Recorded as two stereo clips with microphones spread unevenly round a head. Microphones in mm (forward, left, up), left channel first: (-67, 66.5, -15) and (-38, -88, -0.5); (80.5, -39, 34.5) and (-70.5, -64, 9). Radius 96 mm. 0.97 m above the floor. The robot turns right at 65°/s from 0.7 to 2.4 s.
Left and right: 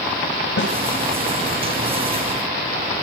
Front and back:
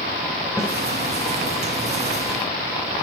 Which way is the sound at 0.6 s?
100° left.